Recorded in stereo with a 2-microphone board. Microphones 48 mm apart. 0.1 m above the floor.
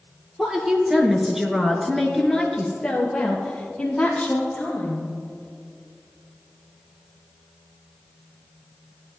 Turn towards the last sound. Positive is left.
turn(degrees=15)  # may be behind; listen again after turning